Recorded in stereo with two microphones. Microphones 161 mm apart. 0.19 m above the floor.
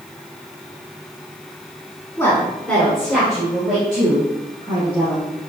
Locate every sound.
2.2 s a woman speaking: 15° left (ahead or behind), 1.4 m; by 5.2 s 5° right (ahead or behind), 5.5 m